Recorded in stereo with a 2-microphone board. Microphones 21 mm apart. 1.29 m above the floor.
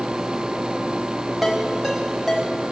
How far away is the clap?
No clap in this recording.